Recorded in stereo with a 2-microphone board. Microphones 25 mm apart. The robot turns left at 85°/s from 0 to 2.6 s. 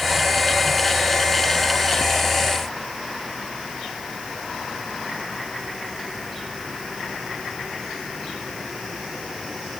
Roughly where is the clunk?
I don't hear a clunk.